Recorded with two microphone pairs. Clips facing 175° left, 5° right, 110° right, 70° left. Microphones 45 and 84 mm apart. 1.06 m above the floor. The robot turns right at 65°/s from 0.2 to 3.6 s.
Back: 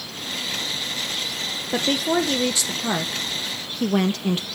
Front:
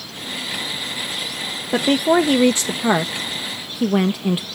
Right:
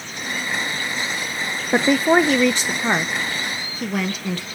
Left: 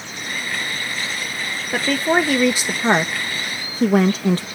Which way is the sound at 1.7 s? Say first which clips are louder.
Front 6 dB, right 3 dB; 60° right.